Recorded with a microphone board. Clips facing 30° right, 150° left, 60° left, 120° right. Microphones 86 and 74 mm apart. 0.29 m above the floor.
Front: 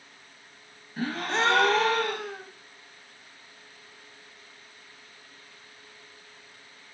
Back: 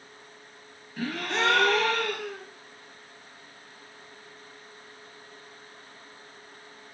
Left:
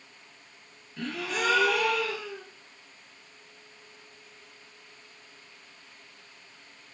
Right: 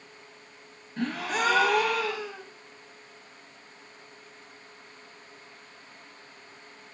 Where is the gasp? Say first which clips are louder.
Front 1 dB, right 3 dB; 85° right, 0.6 m.